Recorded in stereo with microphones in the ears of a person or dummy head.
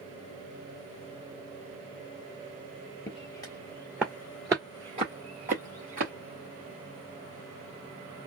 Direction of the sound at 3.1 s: 25° left (ahead or behind).